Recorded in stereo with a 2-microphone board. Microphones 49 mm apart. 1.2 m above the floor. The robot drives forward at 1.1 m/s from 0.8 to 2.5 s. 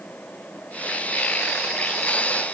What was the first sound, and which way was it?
Only background noise.